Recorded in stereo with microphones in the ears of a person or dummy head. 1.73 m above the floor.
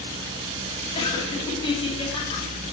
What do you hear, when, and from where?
0.9 s laughter: 30° left (ahead or behind), 1.8 m